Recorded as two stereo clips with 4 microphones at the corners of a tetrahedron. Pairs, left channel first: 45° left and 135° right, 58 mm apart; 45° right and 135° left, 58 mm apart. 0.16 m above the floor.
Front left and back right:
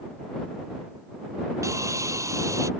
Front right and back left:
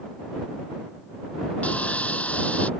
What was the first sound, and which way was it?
Sawing, 110° right.